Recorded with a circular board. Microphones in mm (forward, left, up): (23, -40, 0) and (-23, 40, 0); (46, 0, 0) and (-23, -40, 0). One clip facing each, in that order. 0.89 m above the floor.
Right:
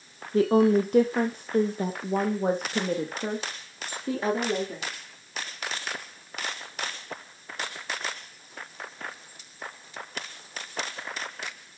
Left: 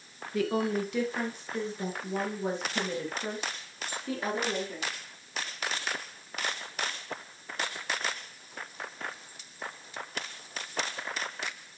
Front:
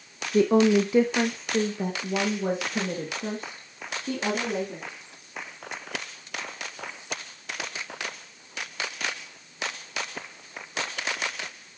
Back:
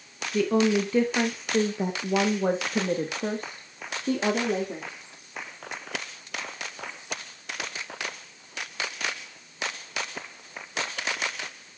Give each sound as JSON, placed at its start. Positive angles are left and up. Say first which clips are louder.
{"t": 0.3, "sound": "a woman speaking", "louder": "right 9 dB, front 3 dB", "azimuth_deg": -15, "distance_m": 0.8}